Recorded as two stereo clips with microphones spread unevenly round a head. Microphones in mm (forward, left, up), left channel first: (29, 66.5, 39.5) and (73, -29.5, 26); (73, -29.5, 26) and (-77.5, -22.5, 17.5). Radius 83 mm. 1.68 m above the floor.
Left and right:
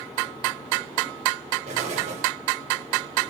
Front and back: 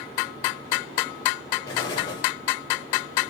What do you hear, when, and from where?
1.7 s an explosion: 65° right, 7.5 m